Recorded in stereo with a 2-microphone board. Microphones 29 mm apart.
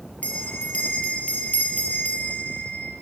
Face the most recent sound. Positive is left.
turn(degrees=45)  # may be behind; listen again after turning